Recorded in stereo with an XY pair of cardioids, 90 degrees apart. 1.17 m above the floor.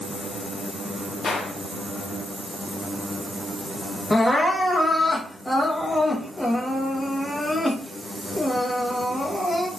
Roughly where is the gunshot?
Ahead left.